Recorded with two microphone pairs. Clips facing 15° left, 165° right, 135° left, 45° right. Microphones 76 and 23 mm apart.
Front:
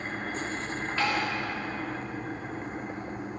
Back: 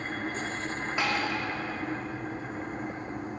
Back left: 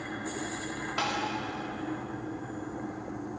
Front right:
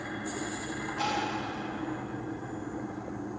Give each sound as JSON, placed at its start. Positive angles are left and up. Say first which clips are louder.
{"t": 1.0, "sound": "tapping", "louder": "front 1 dB, even", "azimuth_deg": 125, "distance_m": 4.0}